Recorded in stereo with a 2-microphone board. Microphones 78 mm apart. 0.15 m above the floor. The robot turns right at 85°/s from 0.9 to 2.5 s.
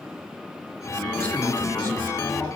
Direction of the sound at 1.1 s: 30° left.